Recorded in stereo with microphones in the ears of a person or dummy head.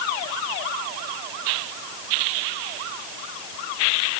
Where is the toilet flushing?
No toilet flushing in this recording.